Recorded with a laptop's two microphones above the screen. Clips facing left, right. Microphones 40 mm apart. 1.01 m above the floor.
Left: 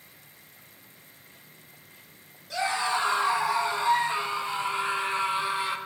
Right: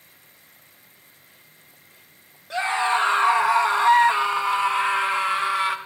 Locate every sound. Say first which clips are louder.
2.5 s a scream: right 5 dB; 35° right (ahead or behind), 1.6 m; by 5.8 s 65° right (ahead or behind), 2.5 m